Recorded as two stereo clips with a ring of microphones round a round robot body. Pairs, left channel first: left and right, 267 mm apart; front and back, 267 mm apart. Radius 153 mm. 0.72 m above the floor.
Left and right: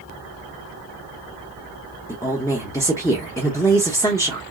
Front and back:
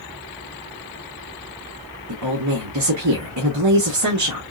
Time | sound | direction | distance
2.1 | a woman speaking | 170° left | 1.1 m